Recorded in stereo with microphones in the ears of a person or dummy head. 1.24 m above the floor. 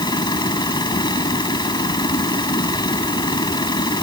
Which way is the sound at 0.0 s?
25° left (ahead or behind).